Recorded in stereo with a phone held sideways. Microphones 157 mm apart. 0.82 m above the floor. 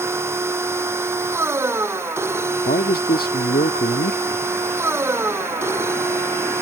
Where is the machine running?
15° right (ahead or behind).